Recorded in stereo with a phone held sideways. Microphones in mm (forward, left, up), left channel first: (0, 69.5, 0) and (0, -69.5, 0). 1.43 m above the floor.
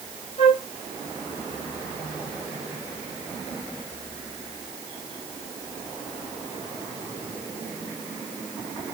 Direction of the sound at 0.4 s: 45° left (ahead or behind).